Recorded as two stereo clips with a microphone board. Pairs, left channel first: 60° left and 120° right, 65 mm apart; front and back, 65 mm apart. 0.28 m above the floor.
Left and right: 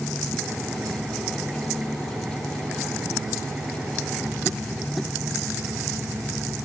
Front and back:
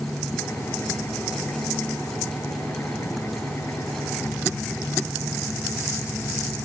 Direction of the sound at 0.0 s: 45° right.